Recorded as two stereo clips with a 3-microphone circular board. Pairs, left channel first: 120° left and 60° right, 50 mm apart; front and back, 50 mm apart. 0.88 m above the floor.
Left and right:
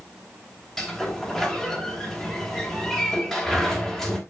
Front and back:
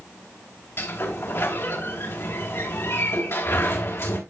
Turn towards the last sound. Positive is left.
turn(degrees=35)